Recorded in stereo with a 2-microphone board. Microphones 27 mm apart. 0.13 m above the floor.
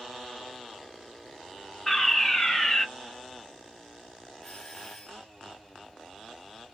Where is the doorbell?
15° left (ahead or behind), 1.9 m.